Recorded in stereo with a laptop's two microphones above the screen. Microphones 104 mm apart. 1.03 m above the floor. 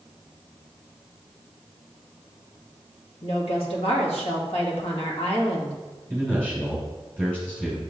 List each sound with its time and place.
3.2 s a woman speaking: 70° left (ahead or behind), 1.7 m
6.1 s a man speaking: 15° left (ahead or behind), 3 m